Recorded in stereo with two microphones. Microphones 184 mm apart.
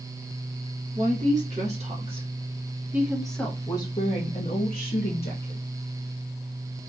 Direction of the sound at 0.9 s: 45° right (ahead or behind).